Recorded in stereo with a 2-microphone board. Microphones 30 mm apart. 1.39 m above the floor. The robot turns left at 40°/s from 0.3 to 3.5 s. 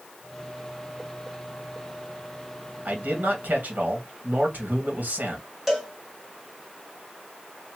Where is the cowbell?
5° right (ahead or behind), 1.4 m.